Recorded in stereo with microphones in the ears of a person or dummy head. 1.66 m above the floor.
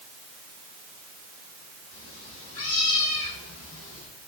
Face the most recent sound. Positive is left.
turn(degrees=80)